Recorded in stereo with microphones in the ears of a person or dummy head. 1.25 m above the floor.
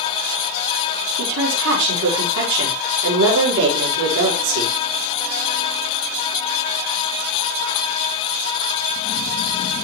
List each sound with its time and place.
1.2 s a woman speaking: 65° right (ahead or behind), 5 m